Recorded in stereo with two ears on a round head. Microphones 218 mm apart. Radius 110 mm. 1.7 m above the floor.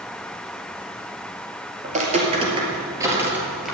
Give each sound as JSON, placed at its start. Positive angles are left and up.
{"t": 1.8, "sound": "footsteps", "side_deg": -35, "distance_m": 2.5}